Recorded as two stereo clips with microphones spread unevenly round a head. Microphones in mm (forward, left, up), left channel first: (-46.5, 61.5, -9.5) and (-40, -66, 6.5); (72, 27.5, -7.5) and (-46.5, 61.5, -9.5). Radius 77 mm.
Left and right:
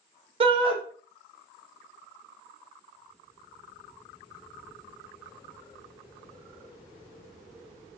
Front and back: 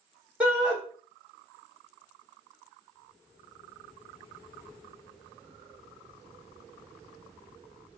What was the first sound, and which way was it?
A shout, 120° right.